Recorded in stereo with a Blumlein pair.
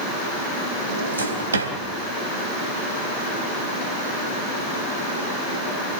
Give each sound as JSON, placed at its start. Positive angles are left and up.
{"t": 0.9, "sound": "a drawer", "azimuth_deg": -70, "distance_m": 3.0}